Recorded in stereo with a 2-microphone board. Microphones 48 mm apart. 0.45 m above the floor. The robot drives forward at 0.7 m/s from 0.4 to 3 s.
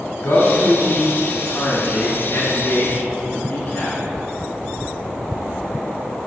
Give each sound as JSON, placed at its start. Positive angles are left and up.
{"t": 0.2, "sound": "a man speaking", "side_deg": 65, "distance_m": 3.0}